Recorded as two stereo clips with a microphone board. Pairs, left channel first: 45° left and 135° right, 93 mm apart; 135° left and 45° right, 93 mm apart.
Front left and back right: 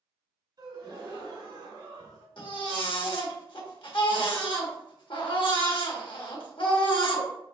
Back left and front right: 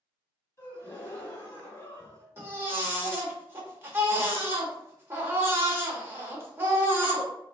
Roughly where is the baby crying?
Ahead.